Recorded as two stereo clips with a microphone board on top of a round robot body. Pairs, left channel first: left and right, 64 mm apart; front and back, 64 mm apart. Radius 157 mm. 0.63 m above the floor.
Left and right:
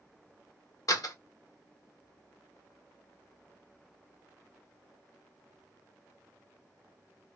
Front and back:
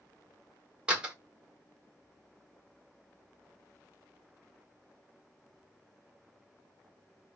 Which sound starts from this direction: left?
A door slam, at 0.9 s.